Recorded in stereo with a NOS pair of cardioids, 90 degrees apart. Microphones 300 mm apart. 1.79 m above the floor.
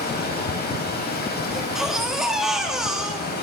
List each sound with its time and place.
0.0 s running water: 35° left, 4.5 m
1.5 s a baby crying: straight ahead, 2.5 m